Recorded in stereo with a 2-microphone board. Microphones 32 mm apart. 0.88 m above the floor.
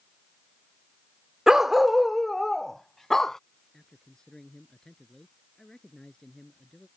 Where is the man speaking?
20° left (ahead or behind).